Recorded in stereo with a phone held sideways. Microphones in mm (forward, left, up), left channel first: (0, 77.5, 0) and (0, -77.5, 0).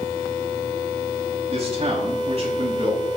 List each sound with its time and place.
1.5 s a man speaking: 40° right (ahead or behind), 6 m